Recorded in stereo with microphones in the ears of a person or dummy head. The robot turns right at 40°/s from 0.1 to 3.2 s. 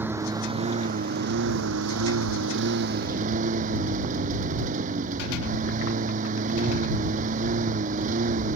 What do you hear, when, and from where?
0.0 s a lawn mower: 170° right; by 8.6 s 45° right